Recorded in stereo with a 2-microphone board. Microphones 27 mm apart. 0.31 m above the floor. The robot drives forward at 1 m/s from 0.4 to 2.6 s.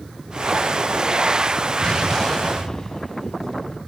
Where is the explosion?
25° left (ahead or behind), 1.0 m; by 3.8 s 15° left (ahead or behind), 1.6 m.